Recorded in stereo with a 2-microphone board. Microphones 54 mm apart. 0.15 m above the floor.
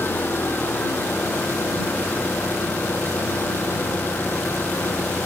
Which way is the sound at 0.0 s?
40° left (ahead or behind).